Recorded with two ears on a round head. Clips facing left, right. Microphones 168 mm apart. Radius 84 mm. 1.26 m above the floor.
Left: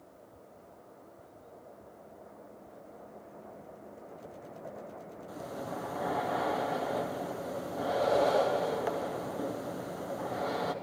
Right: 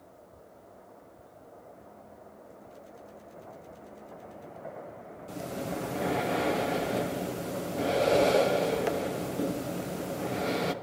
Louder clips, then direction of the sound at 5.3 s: Right 4 dB; 30° right (ahead or behind).